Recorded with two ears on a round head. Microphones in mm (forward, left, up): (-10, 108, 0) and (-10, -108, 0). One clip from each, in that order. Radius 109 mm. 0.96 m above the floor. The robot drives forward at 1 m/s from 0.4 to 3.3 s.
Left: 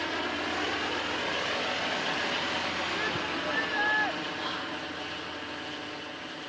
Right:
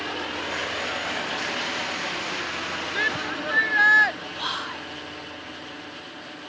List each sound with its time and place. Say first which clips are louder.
3.0 s a shout: right 5 dB; 50° right (ahead or behind); by 4.2 s 55° right (ahead or behind)
4.4 s whispering: right 4 dB; 30° right (ahead or behind)